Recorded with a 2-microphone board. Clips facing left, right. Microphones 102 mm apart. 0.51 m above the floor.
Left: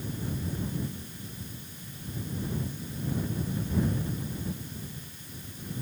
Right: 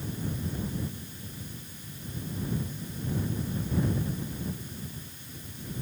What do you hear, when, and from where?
Only background noise.